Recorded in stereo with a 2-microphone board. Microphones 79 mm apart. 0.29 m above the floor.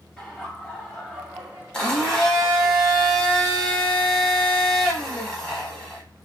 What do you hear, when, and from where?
0.2 s laughter: 10° left (ahead or behind), 1.8 m; by 2.7 s 35° right (ahead or behind), 1.8 m
1.7 s a blender: 5° left (ahead or behind), 1.1 m